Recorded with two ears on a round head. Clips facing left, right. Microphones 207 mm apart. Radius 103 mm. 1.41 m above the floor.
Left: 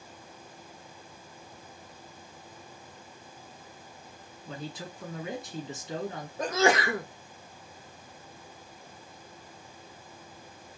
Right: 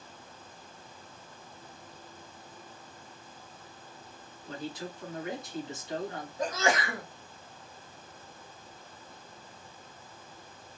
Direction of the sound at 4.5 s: 75° left (ahead or behind).